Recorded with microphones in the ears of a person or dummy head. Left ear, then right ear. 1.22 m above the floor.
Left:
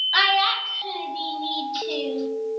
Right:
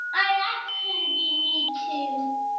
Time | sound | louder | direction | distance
0.1 | a child speaking | left 3 dB | 30° left (ahead or behind) | 0.6 m